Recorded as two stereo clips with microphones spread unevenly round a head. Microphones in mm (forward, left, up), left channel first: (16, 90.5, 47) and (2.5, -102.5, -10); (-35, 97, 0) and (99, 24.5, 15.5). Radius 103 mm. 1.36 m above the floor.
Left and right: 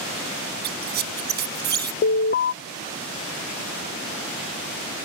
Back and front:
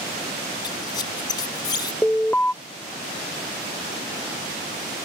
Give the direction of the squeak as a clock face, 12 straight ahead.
5 o'clock.